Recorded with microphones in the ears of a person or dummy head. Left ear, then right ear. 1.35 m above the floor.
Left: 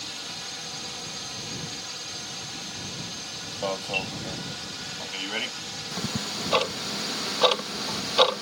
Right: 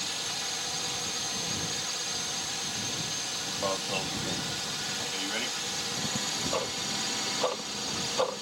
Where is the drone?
15° right (ahead or behind).